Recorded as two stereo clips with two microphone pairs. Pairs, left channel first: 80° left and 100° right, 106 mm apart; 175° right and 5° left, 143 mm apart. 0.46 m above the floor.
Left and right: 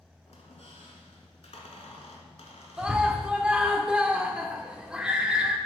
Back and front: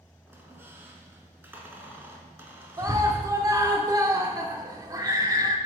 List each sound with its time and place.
0.3 s a squeak: 85° left, 1.1 m
2.8 s a scream: 25° right, 0.9 m